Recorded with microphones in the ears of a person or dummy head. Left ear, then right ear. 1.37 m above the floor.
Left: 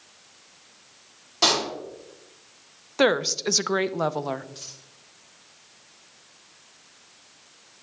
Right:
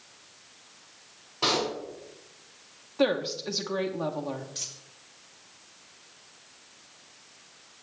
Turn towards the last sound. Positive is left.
turn(degrees=-15)  # may be behind; listen again after turning